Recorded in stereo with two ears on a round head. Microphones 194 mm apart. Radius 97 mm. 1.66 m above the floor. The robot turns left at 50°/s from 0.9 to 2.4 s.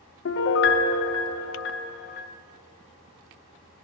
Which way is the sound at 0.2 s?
110° left.